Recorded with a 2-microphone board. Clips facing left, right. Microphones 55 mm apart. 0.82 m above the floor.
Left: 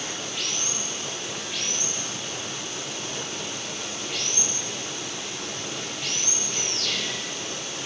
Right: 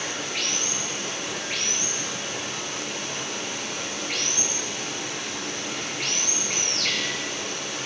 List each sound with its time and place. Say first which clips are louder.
0.0 s running water: right 3 dB; 70° right (ahead or behind), 7.5 m